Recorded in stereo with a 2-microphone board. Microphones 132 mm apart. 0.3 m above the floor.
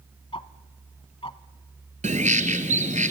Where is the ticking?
45° left (ahead or behind), 0.7 m.